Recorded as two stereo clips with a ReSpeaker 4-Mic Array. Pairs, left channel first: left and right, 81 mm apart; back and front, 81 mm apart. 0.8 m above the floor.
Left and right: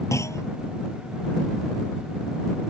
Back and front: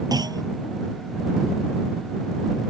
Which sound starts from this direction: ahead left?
A clunk, at 0.1 s.